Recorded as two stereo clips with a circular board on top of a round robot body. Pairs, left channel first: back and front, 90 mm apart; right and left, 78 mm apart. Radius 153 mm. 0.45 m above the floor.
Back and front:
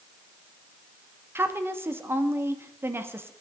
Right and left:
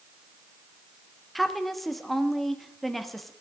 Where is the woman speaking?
5° right, 1.4 m.